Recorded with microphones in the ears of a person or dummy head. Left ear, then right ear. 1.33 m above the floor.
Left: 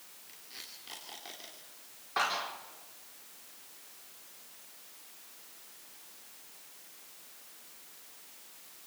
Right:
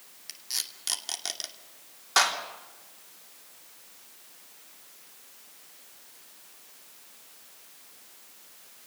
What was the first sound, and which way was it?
Tape being pulled, 80° right.